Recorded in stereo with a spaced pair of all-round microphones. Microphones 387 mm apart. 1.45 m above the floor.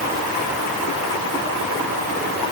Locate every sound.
Only background noise.